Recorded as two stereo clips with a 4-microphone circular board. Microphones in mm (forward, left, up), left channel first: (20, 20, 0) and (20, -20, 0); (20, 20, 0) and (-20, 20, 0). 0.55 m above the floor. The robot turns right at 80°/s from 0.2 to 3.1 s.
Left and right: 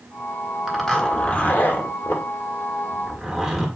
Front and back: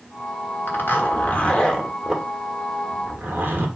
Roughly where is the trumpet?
No trumpet in this recording.